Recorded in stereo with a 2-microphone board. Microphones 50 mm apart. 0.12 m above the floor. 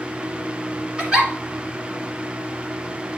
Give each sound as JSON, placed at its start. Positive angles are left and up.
{"t": 1.0, "sound": "a giggle", "side_deg": -20, "distance_m": 1.7}